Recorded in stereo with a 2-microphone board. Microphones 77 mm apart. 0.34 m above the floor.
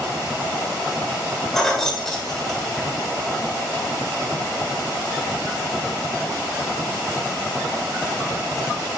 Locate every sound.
1.5 s keys jangling: 5° left (ahead or behind), 0.9 m